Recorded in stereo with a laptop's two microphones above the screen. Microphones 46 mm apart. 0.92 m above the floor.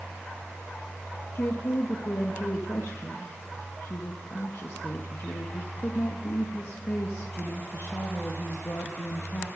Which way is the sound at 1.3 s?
55° left (ahead or behind).